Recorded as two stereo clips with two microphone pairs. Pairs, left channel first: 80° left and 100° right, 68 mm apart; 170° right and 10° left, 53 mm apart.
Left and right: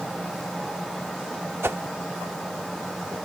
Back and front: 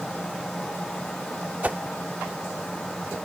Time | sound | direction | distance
1.6 | a whoosh | 50° right | ?